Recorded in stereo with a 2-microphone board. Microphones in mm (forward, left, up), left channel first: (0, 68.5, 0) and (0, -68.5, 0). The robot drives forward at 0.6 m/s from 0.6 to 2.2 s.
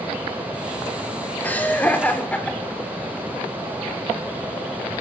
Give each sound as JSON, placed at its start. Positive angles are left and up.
{"t": 1.4, "sound": "laughter", "side_deg": 15, "distance_m": 2.5}